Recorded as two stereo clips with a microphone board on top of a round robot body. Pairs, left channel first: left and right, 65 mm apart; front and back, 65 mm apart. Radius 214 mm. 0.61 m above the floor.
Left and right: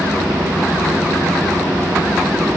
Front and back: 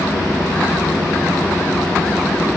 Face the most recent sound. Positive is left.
No sound to turn to.